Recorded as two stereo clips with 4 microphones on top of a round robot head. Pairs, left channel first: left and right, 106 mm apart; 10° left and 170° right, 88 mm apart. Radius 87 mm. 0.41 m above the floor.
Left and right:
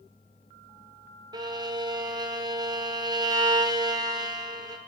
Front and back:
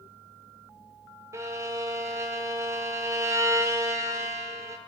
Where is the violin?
125° right, 1.8 m.